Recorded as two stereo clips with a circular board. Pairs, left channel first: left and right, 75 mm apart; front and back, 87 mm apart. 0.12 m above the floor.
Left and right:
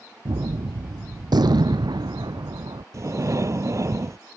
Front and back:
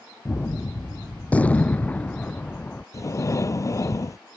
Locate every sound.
0.2 s a gunshot: 75° right
2.9 s breathing: 50° right